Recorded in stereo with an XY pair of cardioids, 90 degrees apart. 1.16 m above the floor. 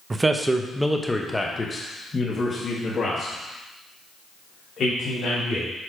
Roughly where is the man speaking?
Ahead right.